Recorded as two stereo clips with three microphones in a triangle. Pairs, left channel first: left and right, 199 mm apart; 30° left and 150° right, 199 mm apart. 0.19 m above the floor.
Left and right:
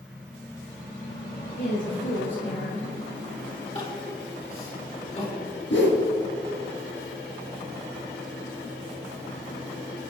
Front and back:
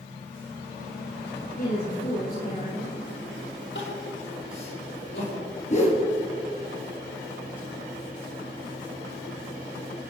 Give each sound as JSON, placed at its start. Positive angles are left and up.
{"t": 1.6, "sound": "a woman speaking", "azimuth_deg": 70, "distance_m": 5.0}
{"t": 3.8, "sound": "crying", "azimuth_deg": 35, "distance_m": 5.5}
{"t": 5.7, "sound": "a whoosh", "azimuth_deg": 80, "distance_m": 2.5}